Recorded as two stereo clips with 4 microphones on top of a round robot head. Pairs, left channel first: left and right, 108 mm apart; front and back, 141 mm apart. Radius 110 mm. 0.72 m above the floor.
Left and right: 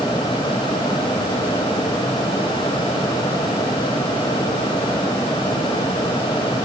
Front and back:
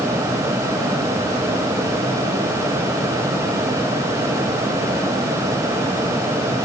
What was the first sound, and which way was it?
Only background noise.